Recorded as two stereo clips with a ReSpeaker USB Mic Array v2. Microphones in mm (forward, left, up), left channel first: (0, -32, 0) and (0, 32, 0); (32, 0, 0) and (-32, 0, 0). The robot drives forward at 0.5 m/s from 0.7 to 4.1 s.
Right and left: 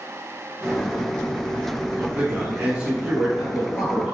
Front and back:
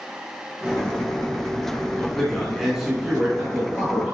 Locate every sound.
1.9 s a man speaking: 60° left, 1.1 m; by 4.2 s 155° left, 1.3 m